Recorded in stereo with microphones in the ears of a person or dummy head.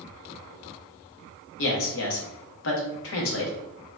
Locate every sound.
1.6 s a man speaking: 70° left (ahead or behind), 0.9 m